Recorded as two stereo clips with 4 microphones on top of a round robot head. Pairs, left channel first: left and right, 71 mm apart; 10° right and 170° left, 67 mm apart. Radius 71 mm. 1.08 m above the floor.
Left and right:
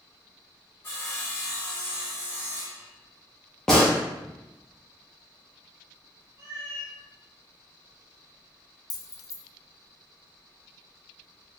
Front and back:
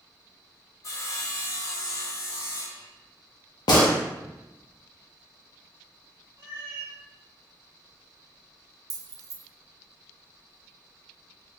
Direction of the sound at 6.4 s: 130° right.